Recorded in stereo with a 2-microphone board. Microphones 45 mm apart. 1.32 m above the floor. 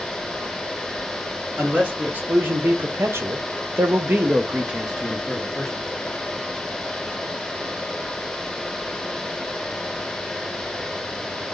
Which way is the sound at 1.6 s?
40° right (ahead or behind).